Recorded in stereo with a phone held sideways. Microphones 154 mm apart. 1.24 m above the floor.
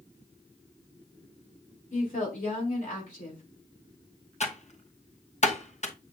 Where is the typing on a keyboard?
50° left (ahead or behind), 1.1 m.